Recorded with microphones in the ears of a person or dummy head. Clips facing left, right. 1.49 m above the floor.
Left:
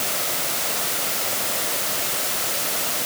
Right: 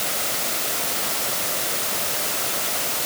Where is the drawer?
No drawer in this recording.